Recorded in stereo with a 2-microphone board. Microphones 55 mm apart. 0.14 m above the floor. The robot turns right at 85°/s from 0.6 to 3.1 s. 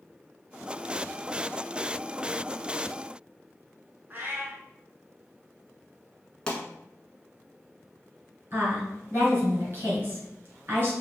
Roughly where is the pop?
Centre.